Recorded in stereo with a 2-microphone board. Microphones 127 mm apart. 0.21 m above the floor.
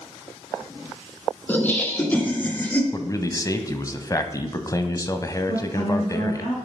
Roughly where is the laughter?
Centre.